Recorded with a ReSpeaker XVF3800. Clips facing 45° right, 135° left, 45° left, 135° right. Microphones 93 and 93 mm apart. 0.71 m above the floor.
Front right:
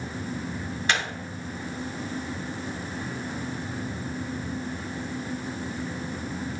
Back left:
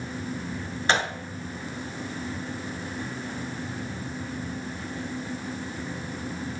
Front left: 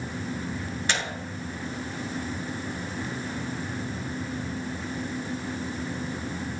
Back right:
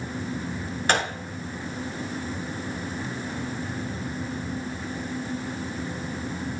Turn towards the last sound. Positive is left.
turn(degrees=-170)